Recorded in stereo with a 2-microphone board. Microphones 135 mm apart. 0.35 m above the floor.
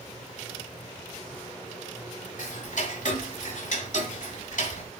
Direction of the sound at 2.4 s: 65° left (ahead or behind).